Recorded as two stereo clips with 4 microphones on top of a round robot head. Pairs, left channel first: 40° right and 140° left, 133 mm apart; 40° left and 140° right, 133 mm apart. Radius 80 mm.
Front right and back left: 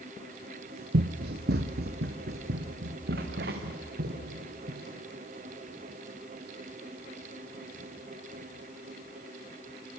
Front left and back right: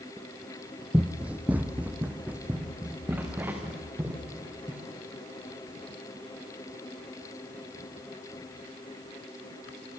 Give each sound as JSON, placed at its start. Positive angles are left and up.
{"t": 0.9, "sound": "running footsteps", "azimuth_deg": 140, "distance_m": 1.0}